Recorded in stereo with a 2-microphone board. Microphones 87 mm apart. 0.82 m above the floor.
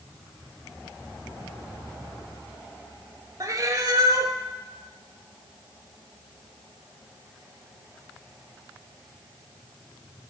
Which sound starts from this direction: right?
A cat meowing, at 3.4 s.